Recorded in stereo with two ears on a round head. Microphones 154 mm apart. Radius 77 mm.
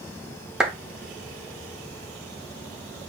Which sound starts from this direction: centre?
A clap, at 0.6 s.